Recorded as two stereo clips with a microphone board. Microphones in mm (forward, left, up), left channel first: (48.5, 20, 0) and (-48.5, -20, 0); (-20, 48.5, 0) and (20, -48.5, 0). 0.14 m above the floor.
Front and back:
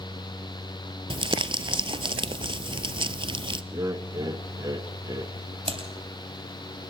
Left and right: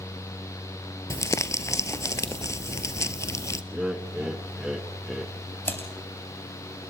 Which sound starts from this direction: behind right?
Laughter, at 3.7 s.